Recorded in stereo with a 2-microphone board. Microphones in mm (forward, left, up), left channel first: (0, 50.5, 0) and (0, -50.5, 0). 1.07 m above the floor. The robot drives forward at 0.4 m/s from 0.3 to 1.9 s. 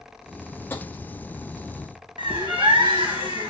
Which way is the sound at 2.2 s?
60° right (ahead or behind).